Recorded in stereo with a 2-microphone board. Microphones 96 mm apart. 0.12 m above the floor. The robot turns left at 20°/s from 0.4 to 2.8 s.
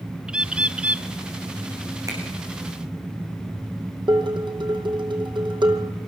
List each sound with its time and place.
0.3 s a bird: 10° right (ahead or behind), 0.8 m; by 1.1 s 15° right (ahead or behind), 0.8 m
2.1 s a finger snap: 35° right (ahead or behind), 9 m; by 2.2 s 40° right (ahead or behind), 9 m
4.1 s dishes clattering: 60° right (ahead or behind), 4 m